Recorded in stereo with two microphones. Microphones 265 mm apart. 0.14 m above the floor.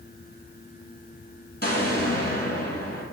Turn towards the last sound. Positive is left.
turn(degrees=35)  # may be behind; listen again after turning